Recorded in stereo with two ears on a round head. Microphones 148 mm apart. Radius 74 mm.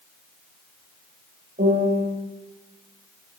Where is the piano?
50° right (ahead or behind), 8 m.